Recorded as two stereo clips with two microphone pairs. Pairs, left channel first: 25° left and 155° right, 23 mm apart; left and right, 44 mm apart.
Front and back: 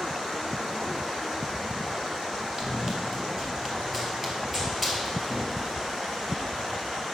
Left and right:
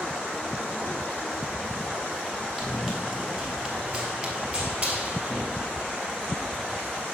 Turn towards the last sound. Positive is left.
turn(degrees=-60)